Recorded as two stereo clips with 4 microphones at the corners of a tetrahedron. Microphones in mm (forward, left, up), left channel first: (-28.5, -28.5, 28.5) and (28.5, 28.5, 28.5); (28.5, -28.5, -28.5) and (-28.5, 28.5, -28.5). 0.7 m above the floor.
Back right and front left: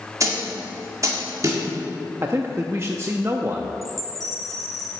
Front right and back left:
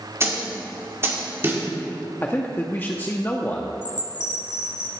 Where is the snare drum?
80° left, 1.8 m.